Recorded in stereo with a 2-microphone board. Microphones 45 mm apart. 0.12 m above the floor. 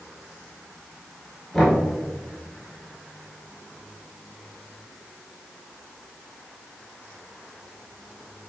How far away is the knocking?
About 1.5 m.